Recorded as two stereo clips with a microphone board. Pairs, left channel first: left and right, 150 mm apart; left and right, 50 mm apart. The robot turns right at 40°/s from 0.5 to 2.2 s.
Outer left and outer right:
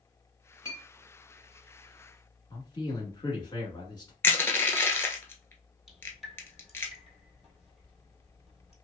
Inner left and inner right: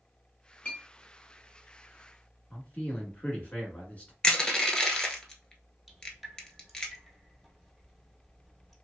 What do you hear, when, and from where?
0.7 s a clink: 25° left (ahead or behind), 1.4 m; by 0.8 s 30° left (ahead or behind), 1.4 m
2.5 s a man speaking: 30° left (ahead or behind), 1.2 m
4.2 s crushing: 15° left (ahead or behind), 0.8 m
5.9 s dripping: centre (ahead or behind), 1.0 m